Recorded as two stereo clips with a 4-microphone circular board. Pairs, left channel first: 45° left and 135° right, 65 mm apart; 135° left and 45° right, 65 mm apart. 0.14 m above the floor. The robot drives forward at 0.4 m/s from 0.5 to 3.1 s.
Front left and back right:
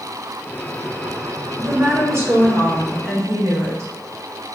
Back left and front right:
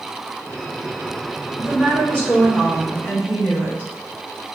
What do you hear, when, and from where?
1.6 s a woman speaking: 170° right, 1.4 m